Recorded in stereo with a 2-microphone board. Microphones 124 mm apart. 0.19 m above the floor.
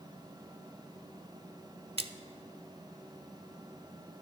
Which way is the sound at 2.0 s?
50° right (ahead or behind).